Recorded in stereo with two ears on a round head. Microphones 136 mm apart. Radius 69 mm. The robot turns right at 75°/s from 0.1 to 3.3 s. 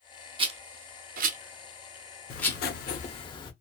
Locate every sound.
0.4 s a rattle: 35° right (ahead or behind), 0.6 m; by 2.6 s 20° left (ahead or behind), 0.6 m
2.3 s writing: 70° left, 0.7 m; by 3.5 s 145° left, 0.7 m